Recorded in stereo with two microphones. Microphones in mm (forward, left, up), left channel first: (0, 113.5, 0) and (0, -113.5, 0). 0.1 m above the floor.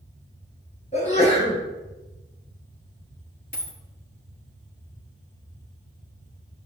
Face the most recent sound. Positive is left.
turn(degrees=40)  # may be behind; listen again after turning